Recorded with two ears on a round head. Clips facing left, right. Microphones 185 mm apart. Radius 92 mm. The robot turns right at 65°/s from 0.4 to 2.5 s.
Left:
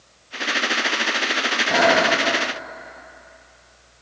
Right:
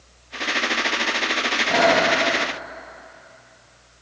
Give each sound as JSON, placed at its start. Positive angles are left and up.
{"t": 1.7, "sound": "breathing", "azimuth_deg": -5, "distance_m": 1.6}